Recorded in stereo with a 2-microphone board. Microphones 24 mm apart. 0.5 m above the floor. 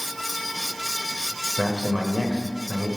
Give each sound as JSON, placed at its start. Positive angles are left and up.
{"t": 1.6, "sound": "a man speaking", "side_deg": -45, "distance_m": 1.5}